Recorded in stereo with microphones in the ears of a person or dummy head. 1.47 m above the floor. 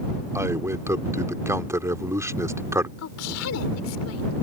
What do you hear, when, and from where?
0.3 s a man speaking: 20° right (ahead or behind)
3.0 s a woman speaking: 85° left